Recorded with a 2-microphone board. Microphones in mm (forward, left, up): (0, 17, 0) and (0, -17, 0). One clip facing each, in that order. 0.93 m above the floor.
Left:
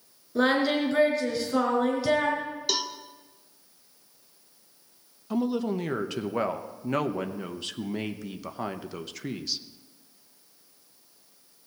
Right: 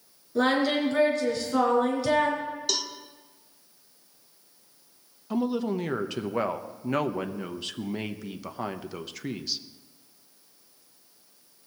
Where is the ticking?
I don't hear ticking.